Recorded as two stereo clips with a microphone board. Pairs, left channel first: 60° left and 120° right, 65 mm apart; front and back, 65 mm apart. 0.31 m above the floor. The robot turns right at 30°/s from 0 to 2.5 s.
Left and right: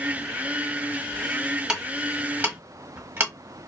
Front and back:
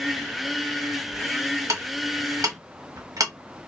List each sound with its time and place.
1.7 s ticking: 160° left, 1.1 m; by 3.3 s 175° right, 1.1 m